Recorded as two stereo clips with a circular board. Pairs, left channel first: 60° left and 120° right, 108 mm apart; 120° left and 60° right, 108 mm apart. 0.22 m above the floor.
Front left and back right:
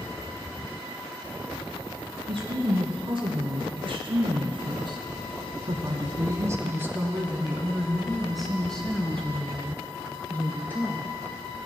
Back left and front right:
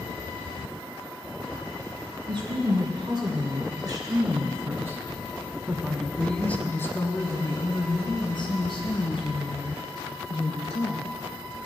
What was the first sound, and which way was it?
A woman speaking, 95° right.